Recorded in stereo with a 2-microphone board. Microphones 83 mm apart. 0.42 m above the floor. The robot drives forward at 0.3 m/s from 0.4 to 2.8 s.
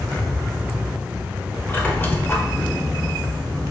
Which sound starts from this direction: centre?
A squeak, at 1.7 s.